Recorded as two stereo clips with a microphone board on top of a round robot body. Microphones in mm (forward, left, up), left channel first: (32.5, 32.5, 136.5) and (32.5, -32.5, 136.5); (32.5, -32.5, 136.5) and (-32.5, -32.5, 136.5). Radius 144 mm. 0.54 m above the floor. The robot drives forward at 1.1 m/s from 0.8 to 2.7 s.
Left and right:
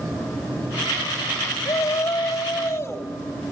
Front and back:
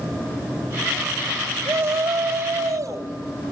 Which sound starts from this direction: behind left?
A shout, at 1.6 s.